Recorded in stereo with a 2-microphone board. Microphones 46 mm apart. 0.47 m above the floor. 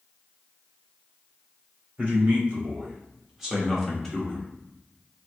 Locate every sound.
2.0 s a man speaking: 35° right (ahead or behind), 1.8 m; by 4.5 s 25° left (ahead or behind), 1.0 m